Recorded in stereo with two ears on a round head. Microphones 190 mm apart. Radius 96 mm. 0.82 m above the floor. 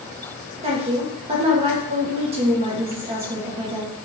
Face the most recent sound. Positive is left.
turn(degrees=-30)  # may be behind; listen again after turning